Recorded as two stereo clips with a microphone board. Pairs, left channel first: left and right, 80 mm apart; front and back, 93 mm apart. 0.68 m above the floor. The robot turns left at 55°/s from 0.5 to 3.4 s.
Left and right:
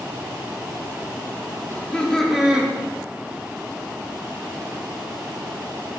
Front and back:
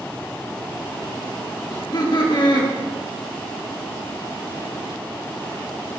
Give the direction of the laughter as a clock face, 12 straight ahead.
11 o'clock.